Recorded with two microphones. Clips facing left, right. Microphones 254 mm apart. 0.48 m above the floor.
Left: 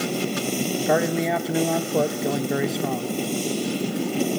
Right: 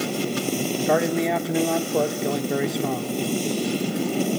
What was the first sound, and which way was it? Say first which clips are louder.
A man speaking: right 1 dB; centre (ahead or behind).